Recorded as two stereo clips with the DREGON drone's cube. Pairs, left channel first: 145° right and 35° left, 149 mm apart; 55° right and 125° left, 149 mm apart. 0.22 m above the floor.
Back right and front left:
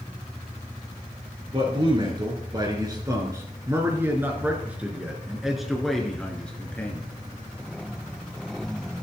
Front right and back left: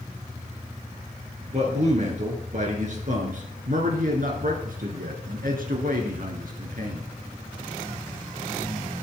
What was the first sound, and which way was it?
A man speaking, 85° left.